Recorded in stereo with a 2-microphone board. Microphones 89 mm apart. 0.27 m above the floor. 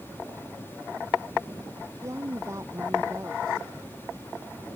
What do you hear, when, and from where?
2.0 s a woman speaking: 35° right (ahead or behind)